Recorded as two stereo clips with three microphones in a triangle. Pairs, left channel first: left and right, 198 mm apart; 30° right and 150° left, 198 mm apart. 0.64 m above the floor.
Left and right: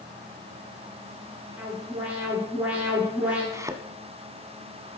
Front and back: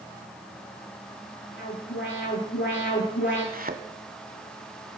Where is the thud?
165° right, 1.3 m.